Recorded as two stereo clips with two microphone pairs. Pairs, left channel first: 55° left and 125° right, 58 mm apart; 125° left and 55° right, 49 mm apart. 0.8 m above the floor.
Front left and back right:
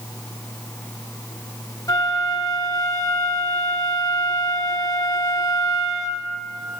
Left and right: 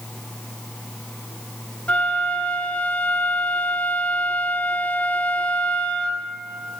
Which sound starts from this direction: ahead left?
A flute, at 1.9 s.